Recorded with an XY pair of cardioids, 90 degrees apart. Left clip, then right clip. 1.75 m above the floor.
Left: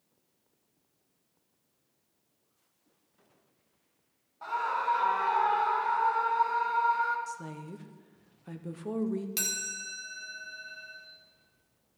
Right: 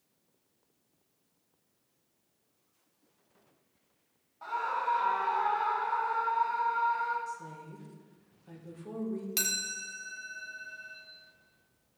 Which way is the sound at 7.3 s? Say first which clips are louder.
Left 1 dB; 65° left.